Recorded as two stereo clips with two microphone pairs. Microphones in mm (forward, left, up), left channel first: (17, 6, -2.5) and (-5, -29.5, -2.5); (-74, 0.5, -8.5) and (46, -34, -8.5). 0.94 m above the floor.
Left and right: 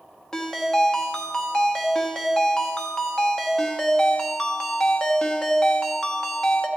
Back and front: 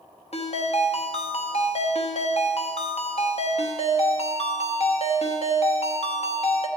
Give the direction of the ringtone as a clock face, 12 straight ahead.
8 o'clock.